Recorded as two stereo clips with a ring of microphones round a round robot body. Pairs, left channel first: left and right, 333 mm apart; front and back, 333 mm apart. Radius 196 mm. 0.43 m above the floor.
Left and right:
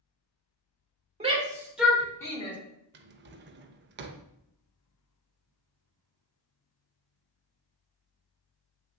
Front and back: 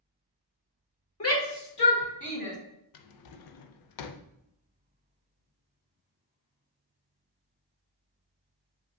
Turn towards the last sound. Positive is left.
turn(degrees=-30)